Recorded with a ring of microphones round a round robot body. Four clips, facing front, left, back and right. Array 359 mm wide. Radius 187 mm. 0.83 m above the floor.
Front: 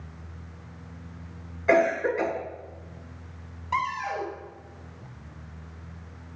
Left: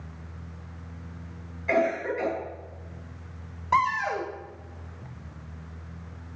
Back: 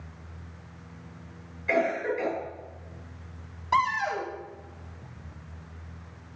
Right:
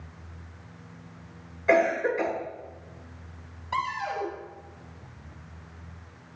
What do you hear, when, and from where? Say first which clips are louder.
1.7 s a cough: right 3 dB, front 5 dB; 25° right, 9 m
3.7 s a cupboard door: left 6 dB, back 3 dB; 105° left, 4.5 m